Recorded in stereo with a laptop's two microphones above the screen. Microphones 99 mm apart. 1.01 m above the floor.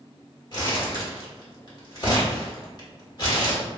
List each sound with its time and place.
0.5 s crumpling: 45° left (ahead or behind), 1.3 m